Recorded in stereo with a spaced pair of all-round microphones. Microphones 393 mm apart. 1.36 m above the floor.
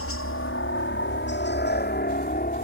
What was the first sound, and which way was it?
A helicopter, 35° left (ahead or behind).